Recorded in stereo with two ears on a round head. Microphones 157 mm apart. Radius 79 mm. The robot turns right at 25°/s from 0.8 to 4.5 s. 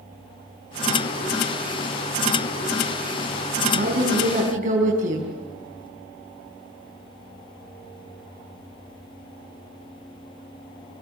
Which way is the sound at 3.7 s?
65° right (ahead or behind).